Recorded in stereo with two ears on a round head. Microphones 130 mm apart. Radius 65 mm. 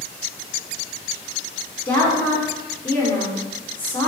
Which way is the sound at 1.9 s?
15° left (ahead or behind).